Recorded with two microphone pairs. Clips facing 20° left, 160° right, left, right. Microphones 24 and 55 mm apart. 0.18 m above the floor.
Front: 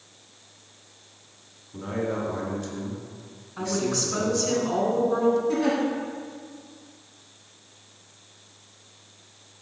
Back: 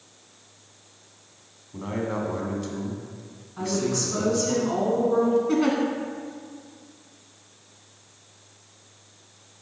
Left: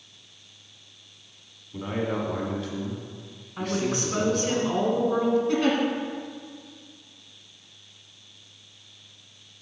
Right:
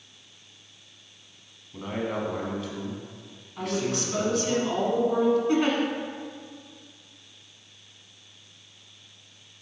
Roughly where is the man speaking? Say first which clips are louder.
Even, left 2 dB; behind.